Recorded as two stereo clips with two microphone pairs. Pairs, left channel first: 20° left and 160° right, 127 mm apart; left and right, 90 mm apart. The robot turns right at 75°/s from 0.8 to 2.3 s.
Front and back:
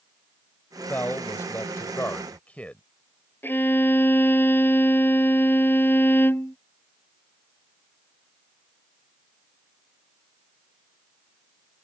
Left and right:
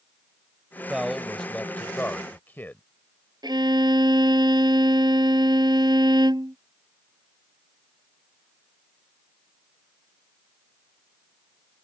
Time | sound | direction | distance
0.9 | a man speaking | 25° right | ?
3.4 | a violin | 55° right | ?